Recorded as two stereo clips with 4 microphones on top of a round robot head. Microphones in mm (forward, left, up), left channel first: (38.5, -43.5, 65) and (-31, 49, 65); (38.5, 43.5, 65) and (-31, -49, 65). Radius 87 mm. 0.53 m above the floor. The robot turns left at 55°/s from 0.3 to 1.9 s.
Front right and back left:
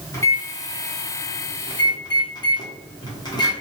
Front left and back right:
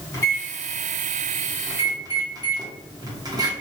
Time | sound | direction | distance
0.1 | a microwave | straight ahead | 1.0 m